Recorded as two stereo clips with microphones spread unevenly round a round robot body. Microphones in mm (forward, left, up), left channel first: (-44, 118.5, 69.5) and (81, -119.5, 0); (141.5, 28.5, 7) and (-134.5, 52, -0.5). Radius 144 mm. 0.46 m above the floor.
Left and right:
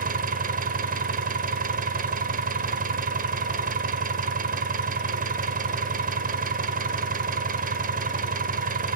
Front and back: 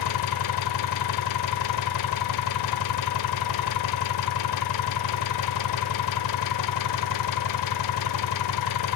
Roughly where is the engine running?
Ahead.